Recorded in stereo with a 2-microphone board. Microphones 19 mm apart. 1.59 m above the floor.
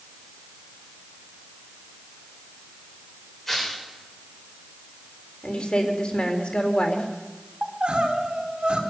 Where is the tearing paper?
15° left (ahead or behind), 7 m.